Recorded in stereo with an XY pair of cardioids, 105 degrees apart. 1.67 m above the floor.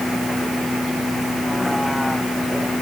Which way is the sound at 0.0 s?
10° left.